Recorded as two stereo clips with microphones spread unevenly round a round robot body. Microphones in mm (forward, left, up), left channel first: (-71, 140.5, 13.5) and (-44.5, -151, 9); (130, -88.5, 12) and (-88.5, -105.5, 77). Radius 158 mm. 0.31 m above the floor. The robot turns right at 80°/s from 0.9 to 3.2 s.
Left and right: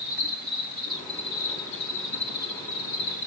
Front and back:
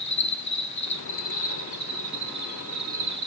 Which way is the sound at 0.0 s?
25° right.